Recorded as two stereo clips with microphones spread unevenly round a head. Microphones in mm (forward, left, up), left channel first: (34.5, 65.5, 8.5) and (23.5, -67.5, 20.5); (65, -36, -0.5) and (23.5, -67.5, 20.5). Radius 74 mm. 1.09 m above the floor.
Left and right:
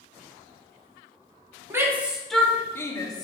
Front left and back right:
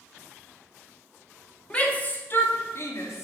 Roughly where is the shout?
Ahead right.